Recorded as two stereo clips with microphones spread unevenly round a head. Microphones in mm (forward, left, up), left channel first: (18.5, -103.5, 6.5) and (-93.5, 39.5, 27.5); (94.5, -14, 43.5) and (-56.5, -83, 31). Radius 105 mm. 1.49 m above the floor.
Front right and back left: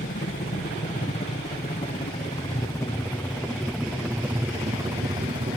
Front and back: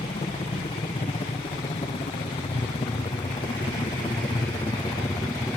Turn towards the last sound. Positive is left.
turn(degrees=95)